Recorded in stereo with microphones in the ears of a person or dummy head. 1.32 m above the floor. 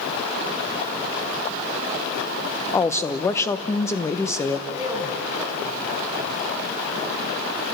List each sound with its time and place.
2.7 s a woman speaking: 10° left (ahead or behind), 1.1 m
4.7 s a man speaking: 20° right (ahead or behind), 4 m